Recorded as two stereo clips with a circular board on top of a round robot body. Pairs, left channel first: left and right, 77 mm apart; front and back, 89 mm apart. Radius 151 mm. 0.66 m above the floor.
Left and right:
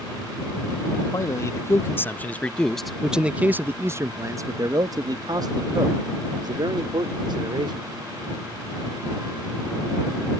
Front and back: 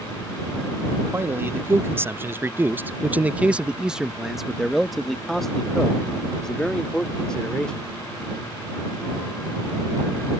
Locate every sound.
1.1 s a man speaking: 120° left; by 7.8 s 80° right